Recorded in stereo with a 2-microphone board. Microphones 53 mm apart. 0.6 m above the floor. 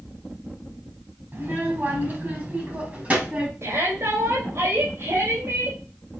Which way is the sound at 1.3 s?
45° right (ahead or behind).